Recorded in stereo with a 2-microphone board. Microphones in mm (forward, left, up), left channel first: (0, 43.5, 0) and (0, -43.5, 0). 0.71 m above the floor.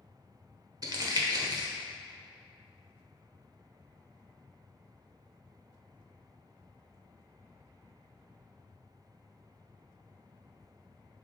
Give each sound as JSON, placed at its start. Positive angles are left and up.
{"t": 0.8, "sound": "crumpling", "side_deg": -50, "distance_m": 1.0}